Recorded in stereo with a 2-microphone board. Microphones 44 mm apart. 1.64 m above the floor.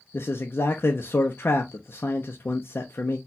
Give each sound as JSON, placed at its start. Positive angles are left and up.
{"t": 0.1, "sound": "a man speaking", "side_deg": 55, "distance_m": 0.5}